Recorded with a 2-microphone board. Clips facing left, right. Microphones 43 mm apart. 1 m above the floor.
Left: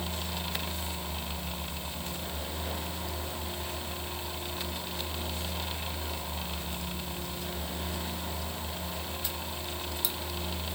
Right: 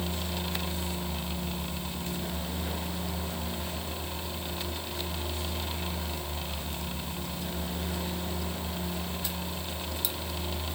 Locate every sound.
Only background noise.